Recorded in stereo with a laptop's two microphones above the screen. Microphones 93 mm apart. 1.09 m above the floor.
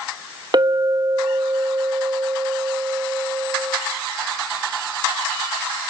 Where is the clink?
50° right (ahead or behind), 1.1 m.